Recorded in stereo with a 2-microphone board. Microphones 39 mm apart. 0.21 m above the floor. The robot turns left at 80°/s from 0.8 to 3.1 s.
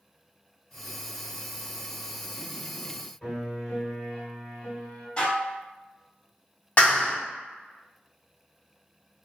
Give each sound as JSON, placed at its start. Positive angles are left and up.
{"t": 3.2, "sound": "a piano", "side_deg": 20, "distance_m": 1.8}
{"t": 5.2, "sound": "dishes clattering", "side_deg": 25, "distance_m": 0.9}
{"t": 6.8, "sound": "a clap", "side_deg": 30, "distance_m": 1.3}